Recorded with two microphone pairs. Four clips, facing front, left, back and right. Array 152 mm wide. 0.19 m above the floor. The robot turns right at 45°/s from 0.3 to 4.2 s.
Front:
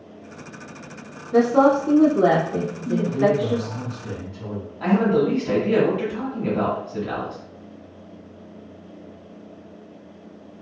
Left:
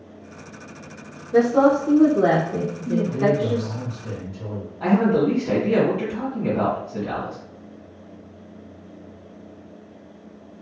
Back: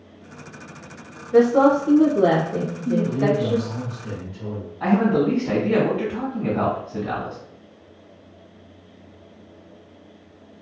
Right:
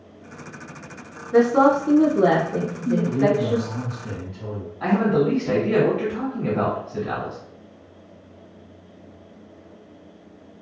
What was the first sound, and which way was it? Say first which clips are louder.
A woman speaking: even, back 1 dB; 45° right.